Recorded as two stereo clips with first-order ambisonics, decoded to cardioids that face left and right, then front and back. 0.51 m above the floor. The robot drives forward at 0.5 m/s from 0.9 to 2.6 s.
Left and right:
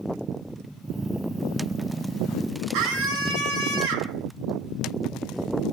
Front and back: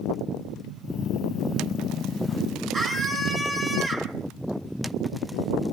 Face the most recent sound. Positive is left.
turn(degrees=-110)